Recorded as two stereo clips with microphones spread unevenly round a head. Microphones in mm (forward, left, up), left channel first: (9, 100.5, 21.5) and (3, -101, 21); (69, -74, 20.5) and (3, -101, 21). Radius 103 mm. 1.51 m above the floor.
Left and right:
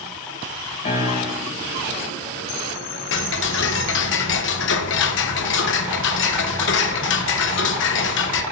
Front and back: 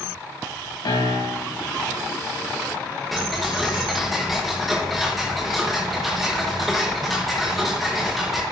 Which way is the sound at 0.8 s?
30° left.